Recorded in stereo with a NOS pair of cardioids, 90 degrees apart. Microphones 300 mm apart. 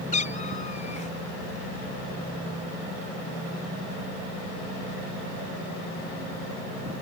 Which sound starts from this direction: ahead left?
A cat meowing, at 0.1 s.